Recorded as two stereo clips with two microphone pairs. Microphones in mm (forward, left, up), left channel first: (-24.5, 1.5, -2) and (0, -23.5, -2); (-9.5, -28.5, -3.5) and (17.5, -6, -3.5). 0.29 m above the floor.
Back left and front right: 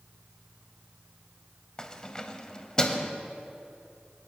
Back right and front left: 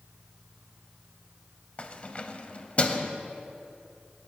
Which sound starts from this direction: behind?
Keys jangling, at 1.8 s.